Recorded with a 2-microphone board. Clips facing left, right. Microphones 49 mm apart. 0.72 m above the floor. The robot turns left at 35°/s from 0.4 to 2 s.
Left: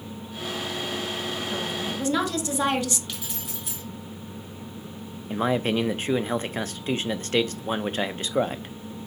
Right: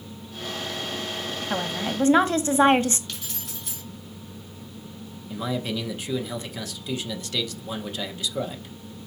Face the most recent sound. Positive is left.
turn(degrees=40)  # may be behind; listen again after turning